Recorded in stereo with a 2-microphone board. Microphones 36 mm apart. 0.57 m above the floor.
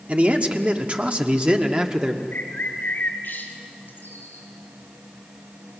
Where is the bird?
60° left (ahead or behind), 3.5 m.